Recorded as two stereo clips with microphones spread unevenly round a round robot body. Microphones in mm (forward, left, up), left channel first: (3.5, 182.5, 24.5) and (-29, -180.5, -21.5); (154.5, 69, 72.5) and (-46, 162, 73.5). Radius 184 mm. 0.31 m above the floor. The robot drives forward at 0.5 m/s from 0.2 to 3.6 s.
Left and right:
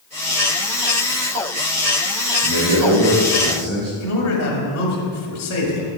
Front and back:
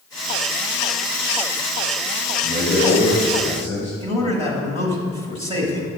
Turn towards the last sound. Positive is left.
turn(degrees=105)